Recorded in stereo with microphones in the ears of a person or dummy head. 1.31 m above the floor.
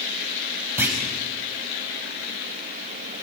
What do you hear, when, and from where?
0.8 s a clunk: 10° right (ahead or behind), 4 m